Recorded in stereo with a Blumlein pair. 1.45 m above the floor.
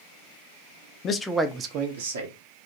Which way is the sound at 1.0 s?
25° left.